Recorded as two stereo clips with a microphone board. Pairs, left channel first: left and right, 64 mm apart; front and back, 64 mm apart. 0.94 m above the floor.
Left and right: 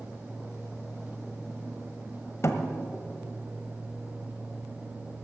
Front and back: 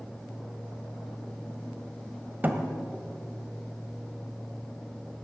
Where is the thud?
125° left, 1.4 m.